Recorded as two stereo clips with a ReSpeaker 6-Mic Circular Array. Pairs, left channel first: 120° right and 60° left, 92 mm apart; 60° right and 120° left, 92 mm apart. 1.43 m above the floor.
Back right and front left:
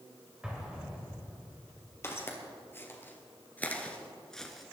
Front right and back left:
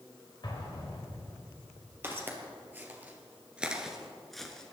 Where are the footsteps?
175° right, 2.5 m; by 4.7 s 30° right, 1.3 m.